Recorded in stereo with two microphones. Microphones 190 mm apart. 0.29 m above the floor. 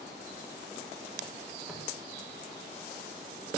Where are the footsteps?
Centre (ahead or behind), 4 m.